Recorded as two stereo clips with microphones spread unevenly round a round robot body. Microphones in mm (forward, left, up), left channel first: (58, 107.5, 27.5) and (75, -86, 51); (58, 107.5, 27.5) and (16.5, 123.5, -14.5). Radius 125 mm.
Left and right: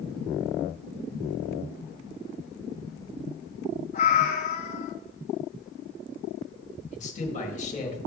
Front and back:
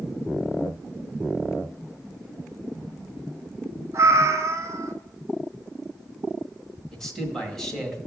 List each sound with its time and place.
3.9 s a cat meowing: 155° left, 0.6 m
6.9 s a man speaking: 115° left, 1.9 m